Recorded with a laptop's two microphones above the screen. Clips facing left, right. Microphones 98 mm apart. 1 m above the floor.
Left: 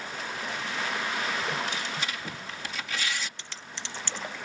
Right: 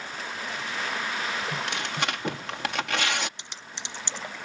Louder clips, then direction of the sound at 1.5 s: Right 1 dB; 65° right (ahead or behind).